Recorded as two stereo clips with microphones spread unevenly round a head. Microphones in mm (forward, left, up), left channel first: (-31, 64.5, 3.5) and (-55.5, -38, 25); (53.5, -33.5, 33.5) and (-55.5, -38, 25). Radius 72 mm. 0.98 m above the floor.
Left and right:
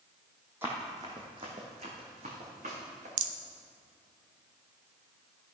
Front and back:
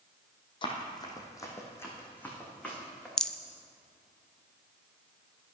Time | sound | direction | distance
0.6 | running footsteps | 35° right | 2 m
3.2 | a rattle | 80° right | 0.5 m